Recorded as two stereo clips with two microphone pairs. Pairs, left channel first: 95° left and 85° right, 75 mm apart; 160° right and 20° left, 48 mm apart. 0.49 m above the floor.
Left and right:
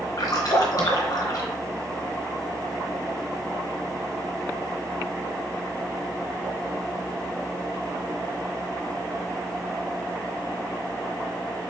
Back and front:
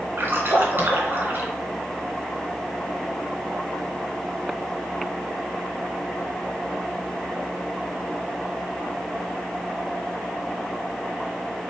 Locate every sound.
0.2 s a splash: 55° left, 1.2 m